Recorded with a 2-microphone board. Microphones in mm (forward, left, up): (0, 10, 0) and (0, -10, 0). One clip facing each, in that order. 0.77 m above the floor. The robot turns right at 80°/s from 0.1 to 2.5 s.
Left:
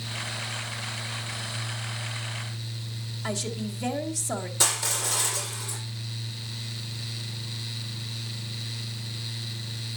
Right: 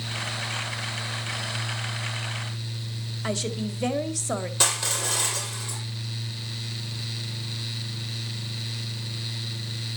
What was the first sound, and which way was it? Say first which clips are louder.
A woman speaking: right 3 dB; 30° right (ahead or behind).